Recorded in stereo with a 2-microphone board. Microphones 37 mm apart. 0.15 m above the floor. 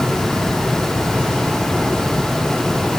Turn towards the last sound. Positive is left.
No sound to turn to.